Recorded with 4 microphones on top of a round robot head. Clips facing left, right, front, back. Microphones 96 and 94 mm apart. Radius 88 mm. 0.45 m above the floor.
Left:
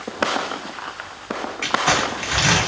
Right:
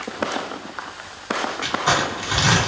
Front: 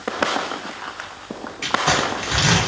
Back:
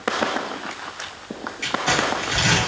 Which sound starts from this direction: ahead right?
Crumpling, at 1.6 s.